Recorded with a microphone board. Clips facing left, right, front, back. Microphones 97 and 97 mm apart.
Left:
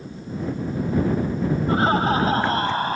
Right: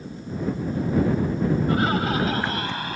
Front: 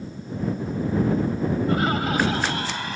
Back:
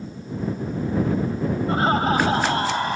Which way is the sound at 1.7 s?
135° left.